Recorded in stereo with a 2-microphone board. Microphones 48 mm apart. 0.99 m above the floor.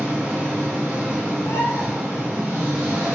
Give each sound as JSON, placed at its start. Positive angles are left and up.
{"t": 0.0, "sound": "an engine running", "side_deg": -20, "distance_m": 1.5}
{"t": 1.4, "sound": "a bird", "side_deg": 80, "distance_m": 0.5}